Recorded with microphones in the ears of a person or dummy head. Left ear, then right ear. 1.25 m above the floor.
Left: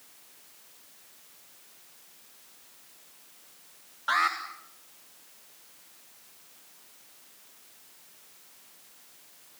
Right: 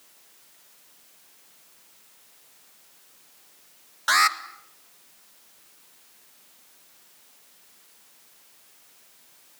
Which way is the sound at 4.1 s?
75° right (ahead or behind).